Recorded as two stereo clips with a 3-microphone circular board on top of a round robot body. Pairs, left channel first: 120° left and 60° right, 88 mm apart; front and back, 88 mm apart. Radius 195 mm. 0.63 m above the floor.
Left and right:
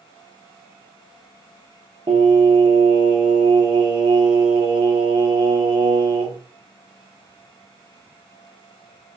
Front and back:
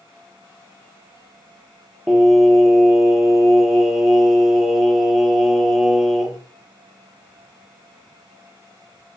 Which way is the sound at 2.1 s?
90° right.